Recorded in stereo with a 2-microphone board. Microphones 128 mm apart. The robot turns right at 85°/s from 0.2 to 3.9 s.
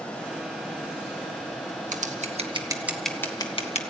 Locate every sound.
1.9 s scissors: 75° right (ahead or behind), 1.4 m; by 3.8 s 60° left (ahead or behind), 1.4 m